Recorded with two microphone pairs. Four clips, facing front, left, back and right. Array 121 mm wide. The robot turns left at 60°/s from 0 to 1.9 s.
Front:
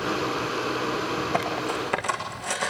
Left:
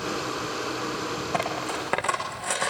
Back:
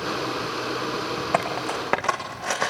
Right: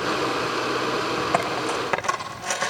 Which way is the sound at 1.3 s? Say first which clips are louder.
Right 2 dB, back 1 dB; 150° right.